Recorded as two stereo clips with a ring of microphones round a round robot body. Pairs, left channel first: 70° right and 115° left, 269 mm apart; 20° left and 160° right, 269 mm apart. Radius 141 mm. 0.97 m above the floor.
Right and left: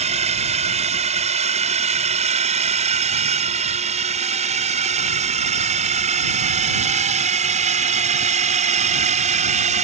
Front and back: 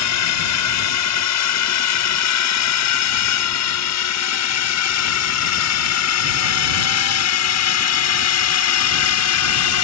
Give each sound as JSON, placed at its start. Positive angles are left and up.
{"t": 0.0, "sound": "a drone", "azimuth_deg": 45}